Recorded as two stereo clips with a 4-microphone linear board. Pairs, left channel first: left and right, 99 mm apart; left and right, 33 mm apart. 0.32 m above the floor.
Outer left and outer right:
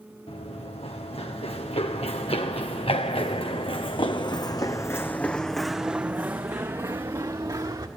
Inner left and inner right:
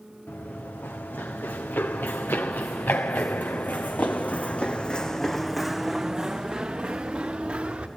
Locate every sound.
0.3 s running footsteps: 80° left, 3 m; by 7.9 s 40° right (ahead or behind), 1.8 m